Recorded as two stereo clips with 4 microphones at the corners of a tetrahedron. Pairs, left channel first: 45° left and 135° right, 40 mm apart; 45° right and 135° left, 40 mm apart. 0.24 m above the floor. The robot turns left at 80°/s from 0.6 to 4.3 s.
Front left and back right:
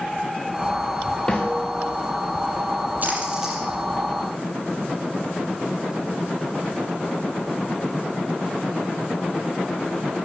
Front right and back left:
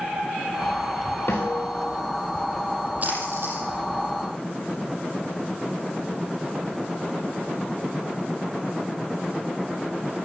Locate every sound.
1.3 s a snare drum: 20° right, 4.5 m; by 1.9 s 75° right, 4.5 m
3.0 s a splash: straight behind, 7 m; by 3.6 s 130° left, 7 m